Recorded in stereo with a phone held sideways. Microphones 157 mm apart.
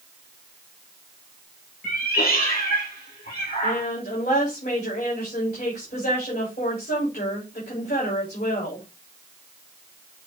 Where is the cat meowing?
70° left (ahead or behind), 4 m; by 3.8 s 80° left, 6 m.